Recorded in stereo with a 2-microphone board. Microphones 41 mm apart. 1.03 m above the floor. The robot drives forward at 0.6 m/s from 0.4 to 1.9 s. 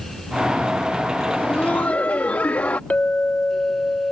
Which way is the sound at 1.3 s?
55° left (ahead or behind).